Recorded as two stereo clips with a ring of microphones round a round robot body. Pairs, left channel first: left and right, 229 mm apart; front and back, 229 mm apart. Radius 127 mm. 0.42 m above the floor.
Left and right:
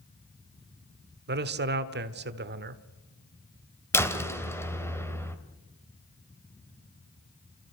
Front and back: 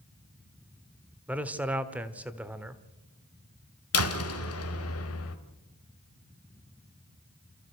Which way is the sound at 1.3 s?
100° right.